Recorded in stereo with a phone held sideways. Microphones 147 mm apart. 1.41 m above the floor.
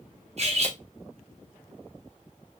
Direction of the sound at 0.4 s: 50° right (ahead or behind).